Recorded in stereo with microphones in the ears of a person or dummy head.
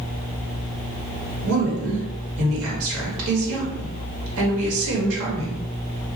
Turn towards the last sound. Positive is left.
turn(degrees=-80)